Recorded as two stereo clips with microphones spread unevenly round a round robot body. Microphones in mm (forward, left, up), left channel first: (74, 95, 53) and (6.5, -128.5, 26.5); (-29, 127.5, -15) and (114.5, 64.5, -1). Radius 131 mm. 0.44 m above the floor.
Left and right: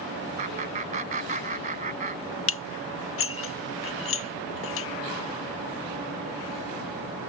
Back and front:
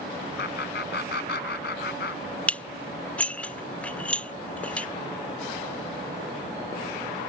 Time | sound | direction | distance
0.4 | laughter | 170° right | ?
2.5 | dishes clattering | 80° left | ?